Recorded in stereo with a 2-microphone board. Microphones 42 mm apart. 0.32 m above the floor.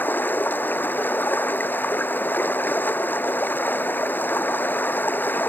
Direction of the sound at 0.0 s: 50° left (ahead or behind).